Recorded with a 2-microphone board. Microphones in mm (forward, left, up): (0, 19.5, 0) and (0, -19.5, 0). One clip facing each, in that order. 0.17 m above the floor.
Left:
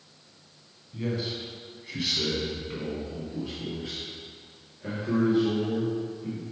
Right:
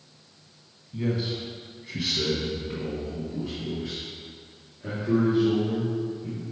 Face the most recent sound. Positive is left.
turn(degrees=10)  # may be behind; listen again after turning